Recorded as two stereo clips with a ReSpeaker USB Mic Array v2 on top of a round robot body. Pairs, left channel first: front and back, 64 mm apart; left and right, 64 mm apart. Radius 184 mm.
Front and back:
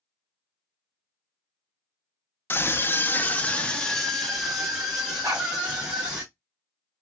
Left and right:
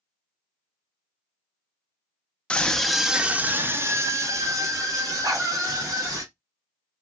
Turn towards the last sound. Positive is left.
turn(degrees=-130)